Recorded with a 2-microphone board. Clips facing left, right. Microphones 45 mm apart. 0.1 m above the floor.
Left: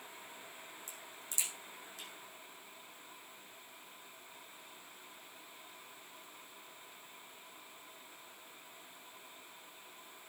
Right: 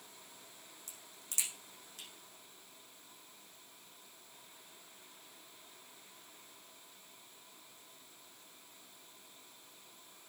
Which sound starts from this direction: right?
A crack, at 0.9 s.